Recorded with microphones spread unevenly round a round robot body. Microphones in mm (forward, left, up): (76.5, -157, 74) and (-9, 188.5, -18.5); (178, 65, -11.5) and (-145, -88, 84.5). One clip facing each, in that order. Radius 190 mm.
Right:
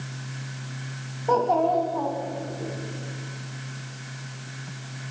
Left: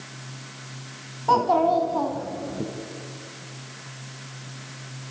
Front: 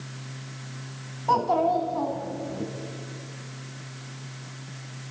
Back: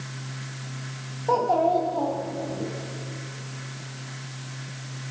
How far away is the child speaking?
About 1.8 m.